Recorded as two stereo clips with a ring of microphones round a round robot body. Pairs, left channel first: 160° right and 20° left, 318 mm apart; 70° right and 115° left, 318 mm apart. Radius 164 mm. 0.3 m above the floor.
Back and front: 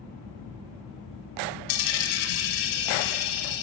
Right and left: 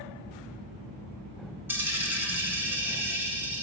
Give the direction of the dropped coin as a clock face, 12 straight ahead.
5 o'clock.